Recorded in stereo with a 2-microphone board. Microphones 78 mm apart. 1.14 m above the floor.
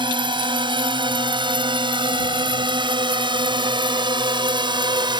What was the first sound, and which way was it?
A drone, 80° right.